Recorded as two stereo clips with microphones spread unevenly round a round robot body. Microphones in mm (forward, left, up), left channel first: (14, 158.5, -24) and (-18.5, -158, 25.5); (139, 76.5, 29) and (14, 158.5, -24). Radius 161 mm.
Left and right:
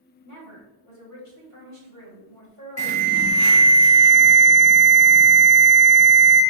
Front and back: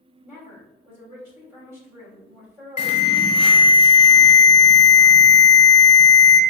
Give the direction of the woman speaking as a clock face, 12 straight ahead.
9 o'clock.